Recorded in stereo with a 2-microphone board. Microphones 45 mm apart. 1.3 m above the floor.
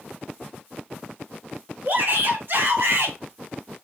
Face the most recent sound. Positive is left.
turn(degrees=-70)  # may be behind; listen again after turning